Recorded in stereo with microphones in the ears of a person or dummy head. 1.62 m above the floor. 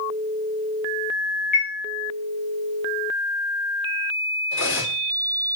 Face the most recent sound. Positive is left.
turn(degrees=65)  # may be behind; listen again after turning